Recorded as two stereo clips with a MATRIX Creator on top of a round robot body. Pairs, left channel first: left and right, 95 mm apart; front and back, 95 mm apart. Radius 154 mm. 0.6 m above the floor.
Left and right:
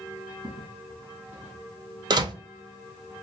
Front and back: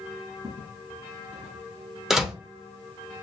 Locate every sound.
0.4 s footsteps: 145° right, 1.7 m; by 1.7 s 175° right, 1.2 m
2.1 s a door slam: 95° right, 0.8 m